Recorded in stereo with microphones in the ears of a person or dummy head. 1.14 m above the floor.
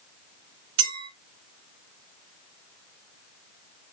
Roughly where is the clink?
Right.